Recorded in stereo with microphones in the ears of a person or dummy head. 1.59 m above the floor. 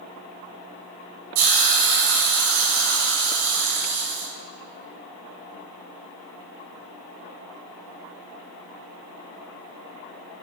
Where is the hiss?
70° right (ahead or behind), 5.5 m.